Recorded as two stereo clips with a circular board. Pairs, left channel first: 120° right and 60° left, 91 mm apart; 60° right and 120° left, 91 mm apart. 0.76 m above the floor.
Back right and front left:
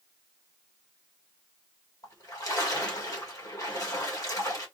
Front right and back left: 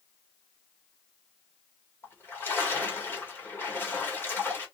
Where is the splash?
115° right, 1.3 m.